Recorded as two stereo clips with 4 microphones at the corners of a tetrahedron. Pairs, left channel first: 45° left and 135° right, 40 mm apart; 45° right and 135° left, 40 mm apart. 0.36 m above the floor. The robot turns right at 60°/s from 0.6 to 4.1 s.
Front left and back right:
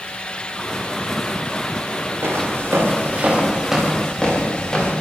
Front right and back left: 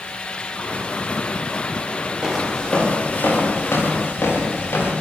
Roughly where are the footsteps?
Behind right.